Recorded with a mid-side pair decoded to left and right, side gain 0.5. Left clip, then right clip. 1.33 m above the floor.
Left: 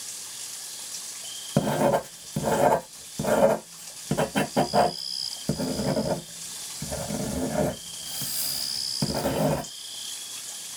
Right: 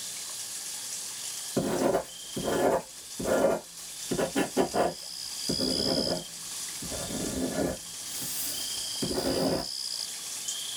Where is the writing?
65° left, 0.9 m.